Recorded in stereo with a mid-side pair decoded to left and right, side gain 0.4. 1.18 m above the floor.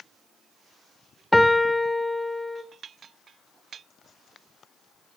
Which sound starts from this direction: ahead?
A piano, at 1.3 s.